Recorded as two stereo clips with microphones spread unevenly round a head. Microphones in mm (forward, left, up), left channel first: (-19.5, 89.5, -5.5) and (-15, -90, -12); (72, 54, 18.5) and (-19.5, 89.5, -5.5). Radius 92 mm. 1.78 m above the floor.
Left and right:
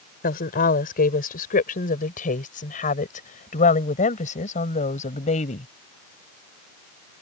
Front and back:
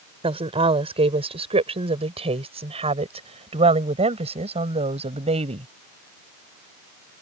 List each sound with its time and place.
0.2 s a woman speaking: 130° left; by 5.7 s 145° left